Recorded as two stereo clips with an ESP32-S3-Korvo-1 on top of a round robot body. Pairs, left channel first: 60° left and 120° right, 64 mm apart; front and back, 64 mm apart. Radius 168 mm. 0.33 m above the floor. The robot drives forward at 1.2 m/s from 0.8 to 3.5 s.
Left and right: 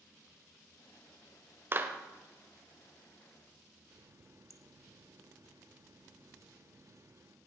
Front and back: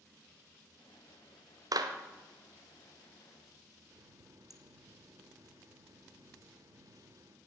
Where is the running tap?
155° right, 1.1 m.